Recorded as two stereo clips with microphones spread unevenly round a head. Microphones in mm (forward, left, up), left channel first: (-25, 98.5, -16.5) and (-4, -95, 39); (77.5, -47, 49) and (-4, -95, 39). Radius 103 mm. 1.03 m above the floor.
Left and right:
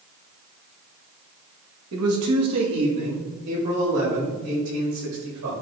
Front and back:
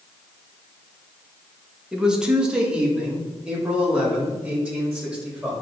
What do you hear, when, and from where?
1.9 s a man speaking: 70° right, 1.8 m